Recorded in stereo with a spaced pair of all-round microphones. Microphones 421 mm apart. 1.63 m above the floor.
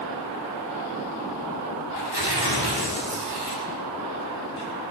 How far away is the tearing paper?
About 5.5 m.